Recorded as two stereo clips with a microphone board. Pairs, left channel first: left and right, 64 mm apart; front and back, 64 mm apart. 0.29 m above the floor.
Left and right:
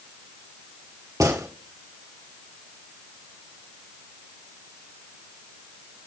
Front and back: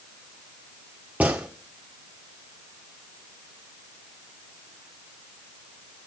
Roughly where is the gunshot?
Behind right.